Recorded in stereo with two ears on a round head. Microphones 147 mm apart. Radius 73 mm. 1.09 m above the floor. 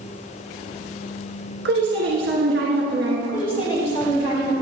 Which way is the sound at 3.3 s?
35° left (ahead or behind).